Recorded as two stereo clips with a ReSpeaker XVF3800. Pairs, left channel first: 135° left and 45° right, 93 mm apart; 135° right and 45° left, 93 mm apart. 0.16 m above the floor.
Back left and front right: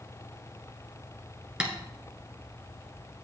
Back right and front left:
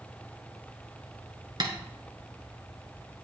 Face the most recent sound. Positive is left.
turn(degrees=30)